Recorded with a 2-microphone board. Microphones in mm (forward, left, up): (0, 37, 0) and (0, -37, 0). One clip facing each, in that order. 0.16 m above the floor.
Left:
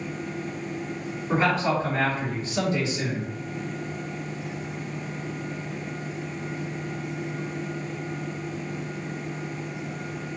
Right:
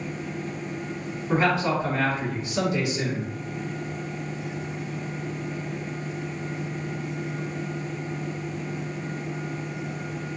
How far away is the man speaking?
About 1.8 m.